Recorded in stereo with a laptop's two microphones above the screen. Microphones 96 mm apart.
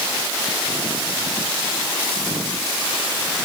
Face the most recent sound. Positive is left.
No sound to turn to.